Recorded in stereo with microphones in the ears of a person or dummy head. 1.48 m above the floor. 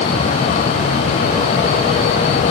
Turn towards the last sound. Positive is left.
No sound to turn to.